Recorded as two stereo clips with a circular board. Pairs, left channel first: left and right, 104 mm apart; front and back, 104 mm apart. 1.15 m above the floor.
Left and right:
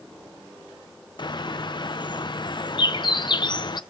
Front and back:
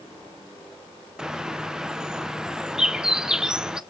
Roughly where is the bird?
Left.